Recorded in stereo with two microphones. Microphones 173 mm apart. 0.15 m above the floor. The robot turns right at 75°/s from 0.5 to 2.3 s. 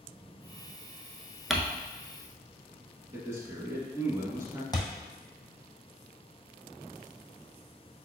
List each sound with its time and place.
1.5 s crumpling: centre (ahead or behind), 0.6 m; by 1.6 s 5° right (ahead or behind), 0.6 m
3.1 s a man speaking: 20° right (ahead or behind), 1.1 m
4.7 s a thud: 25° left (ahead or behind), 0.9 m